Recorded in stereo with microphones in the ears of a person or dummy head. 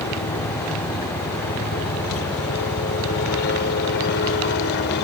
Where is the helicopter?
50° left (ahead or behind); by 5.0 s 55° left (ahead or behind).